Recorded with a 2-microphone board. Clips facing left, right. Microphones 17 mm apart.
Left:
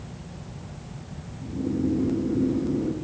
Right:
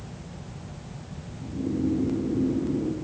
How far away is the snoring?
About 7 m.